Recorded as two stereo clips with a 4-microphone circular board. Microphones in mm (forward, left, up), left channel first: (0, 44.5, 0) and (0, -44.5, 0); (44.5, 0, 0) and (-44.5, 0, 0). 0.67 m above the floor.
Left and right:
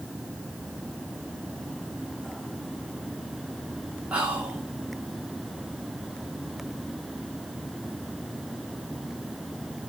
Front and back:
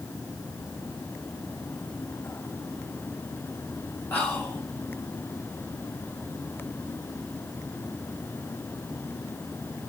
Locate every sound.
4.1 s whispering: 40° right, 1.0 m